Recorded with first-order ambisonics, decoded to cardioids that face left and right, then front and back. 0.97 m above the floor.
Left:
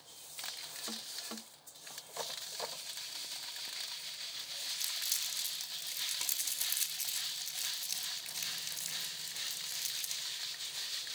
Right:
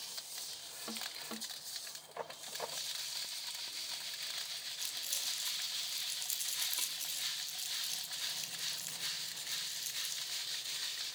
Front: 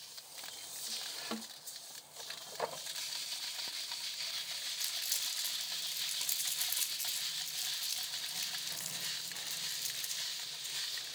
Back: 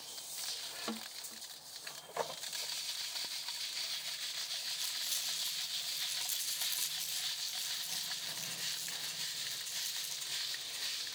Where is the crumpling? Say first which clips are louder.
Left 3 dB, front 3 dB; 80° left, 5.5 m.